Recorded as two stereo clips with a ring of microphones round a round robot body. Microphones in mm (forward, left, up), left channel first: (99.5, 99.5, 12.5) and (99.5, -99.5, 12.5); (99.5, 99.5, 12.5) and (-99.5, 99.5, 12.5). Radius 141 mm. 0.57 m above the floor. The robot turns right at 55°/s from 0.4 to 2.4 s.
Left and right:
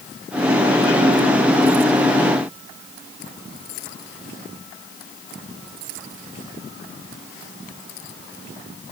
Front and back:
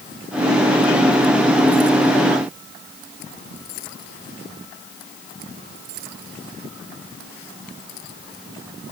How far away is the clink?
I don't hear a clink.